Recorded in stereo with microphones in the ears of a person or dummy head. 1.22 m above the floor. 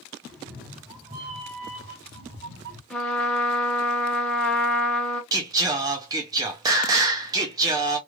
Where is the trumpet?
5° left (ahead or behind), 0.9 m.